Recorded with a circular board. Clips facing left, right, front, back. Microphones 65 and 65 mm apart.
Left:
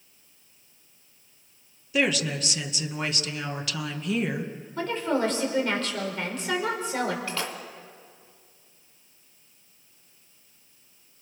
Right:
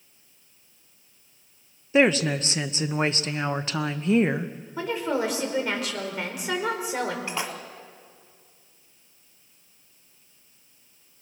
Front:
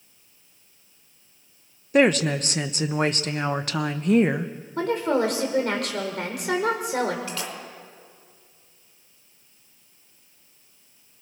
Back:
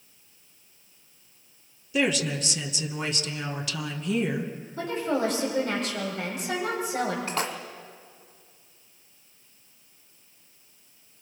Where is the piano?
I don't hear a piano.